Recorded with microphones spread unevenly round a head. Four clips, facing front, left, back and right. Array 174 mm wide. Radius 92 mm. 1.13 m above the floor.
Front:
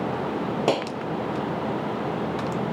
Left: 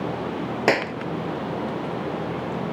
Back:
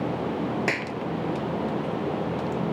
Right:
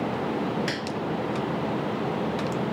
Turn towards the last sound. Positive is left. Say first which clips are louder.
# left 9 dB, front 5 dB
turn(degrees=55)